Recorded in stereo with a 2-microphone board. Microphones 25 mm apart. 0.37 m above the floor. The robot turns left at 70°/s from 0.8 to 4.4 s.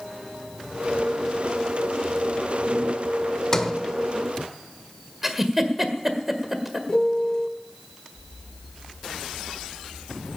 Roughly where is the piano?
Left.